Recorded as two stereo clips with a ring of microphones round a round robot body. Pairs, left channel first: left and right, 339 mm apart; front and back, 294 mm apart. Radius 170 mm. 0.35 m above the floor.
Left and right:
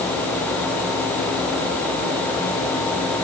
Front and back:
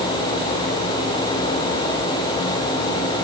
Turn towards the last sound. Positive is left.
No sound to turn to.